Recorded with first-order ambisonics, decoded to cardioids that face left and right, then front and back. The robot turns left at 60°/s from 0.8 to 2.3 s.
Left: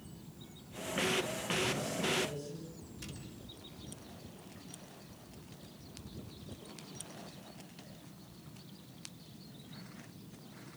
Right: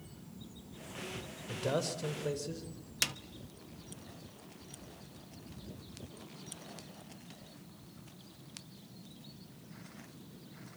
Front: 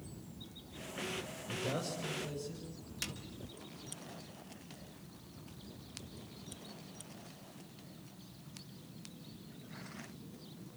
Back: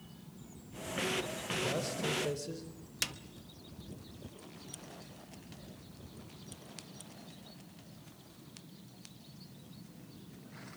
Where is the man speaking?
85° right, 4 m; by 2.7 s 135° right, 4 m.